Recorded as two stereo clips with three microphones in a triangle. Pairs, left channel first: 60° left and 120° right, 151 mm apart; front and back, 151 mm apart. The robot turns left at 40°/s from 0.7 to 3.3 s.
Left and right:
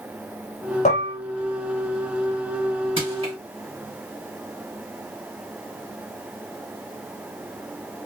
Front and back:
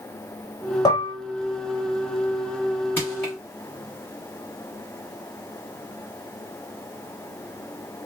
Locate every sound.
0.8 s dishes clattering: 55° left, 1.0 m; by 1.1 s 45° left, 1.0 m
3.0 s crushing: 75° right, 1.7 m; by 3.4 s 90° right, 1.7 m